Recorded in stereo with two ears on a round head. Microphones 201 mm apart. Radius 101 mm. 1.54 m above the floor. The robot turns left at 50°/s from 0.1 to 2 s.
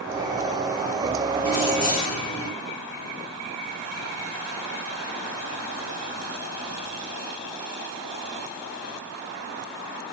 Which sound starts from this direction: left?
Keys jangling, at 1.4 s.